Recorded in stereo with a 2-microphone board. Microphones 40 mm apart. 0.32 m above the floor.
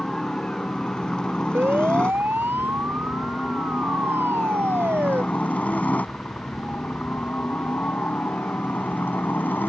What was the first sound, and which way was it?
A helicopter, 20° left (ahead or behind).